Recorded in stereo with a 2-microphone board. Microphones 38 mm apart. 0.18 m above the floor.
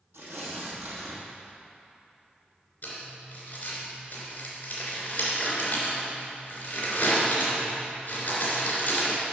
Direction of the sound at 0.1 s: 80° right.